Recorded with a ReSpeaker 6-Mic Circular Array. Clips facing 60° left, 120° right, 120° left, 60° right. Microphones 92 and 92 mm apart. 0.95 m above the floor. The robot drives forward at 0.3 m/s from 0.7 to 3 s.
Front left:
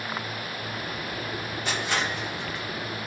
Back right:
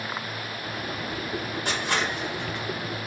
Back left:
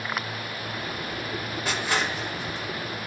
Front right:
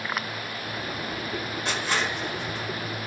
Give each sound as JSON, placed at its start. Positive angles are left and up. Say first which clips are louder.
{"t": 1.6, "sound": "crushing", "louder": "even, back left 1 dB", "azimuth_deg": -155, "distance_m": 1.4}